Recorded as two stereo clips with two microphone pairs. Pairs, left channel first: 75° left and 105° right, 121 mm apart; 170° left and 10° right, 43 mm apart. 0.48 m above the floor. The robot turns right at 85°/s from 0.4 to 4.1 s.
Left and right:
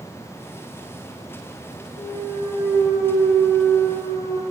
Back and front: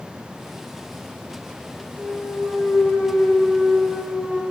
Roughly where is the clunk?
Left.